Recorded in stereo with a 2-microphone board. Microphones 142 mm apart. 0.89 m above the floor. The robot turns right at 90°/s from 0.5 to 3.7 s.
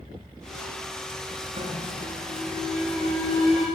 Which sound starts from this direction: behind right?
An alarm, at 1.6 s.